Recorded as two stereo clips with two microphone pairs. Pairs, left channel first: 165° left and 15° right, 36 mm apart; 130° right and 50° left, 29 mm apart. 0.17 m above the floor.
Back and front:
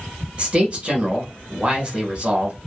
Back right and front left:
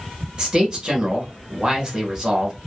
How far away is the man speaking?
About 1.2 m.